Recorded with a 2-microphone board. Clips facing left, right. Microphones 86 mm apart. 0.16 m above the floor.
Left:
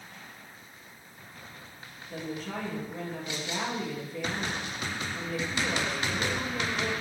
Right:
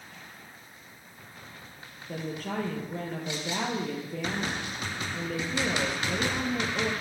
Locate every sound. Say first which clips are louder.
2.1 s a woman speaking: right 2 dB; 55° right (ahead or behind), 3.5 m